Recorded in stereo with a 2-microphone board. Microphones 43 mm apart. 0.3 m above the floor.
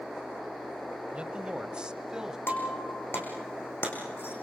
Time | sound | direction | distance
1.1 | a man speaking | 30° right (ahead or behind) | 1.2 m
2.5 | breaking glass | 60° left (ahead or behind) | 5 m